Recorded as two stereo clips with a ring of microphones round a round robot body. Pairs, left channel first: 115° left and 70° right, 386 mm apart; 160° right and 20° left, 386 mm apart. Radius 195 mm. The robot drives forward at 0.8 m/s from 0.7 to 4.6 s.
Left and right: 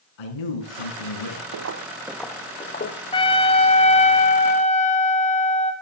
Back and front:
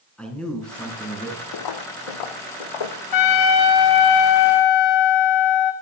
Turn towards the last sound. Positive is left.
turn(degrees=-175)